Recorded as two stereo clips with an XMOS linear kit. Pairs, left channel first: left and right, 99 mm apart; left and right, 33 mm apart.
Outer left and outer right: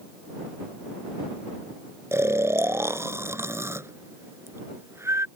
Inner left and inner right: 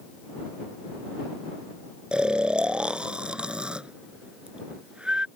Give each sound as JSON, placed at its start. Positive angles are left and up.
{"t": 2.1, "sound": "snoring", "side_deg": -25}